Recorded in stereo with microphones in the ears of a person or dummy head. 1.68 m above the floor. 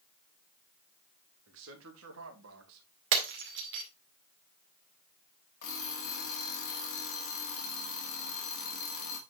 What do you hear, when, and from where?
1.5 s a man speaking: 70° right (ahead or behind), 2.5 m; by 2.9 s 80° right, 1.8 m
3.1 s breaking glass: 60° right (ahead or behind), 2 m
5.6 s an alarm clock: 50° left (ahead or behind), 1.9 m